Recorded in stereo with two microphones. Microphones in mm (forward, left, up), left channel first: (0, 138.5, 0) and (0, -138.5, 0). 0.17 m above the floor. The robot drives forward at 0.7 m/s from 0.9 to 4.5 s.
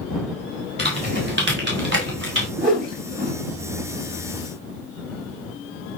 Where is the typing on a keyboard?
40° right (ahead or behind), 8 m; by 2.5 s 45° right (ahead or behind), 7 m.